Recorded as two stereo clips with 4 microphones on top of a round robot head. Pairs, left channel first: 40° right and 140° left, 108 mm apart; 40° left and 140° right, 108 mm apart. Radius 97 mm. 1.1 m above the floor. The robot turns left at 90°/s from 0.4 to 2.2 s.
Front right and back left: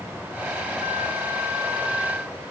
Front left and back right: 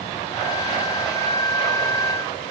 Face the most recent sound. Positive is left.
No sound to turn to.